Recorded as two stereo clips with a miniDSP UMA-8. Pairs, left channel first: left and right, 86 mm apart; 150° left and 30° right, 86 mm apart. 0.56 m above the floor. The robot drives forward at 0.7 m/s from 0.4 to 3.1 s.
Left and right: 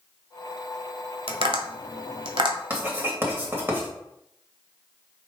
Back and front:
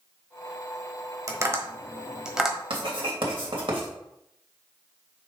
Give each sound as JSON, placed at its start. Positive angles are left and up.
{"t": 1.3, "sound": "tapping", "azimuth_deg": -80, "distance_m": 1.4}
{"t": 2.7, "sound": "writing", "azimuth_deg": -25, "distance_m": 2.5}